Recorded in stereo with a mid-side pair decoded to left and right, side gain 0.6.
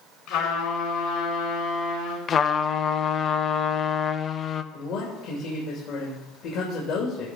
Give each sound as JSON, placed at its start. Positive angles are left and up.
{"t": 0.3, "sound": "a trumpet", "azimuth_deg": 65, "distance_m": 5.5}
{"t": 2.3, "sound": "a trumpet", "azimuth_deg": 40, "distance_m": 0.7}
{"t": 4.7, "sound": "a man speaking", "azimuth_deg": 60, "distance_m": 2.5}